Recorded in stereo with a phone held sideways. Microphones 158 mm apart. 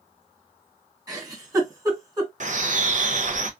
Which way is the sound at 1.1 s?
20° right (ahead or behind).